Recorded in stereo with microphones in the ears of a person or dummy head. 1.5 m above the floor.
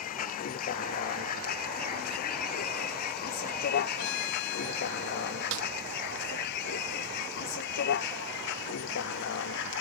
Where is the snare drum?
75° right (ahead or behind).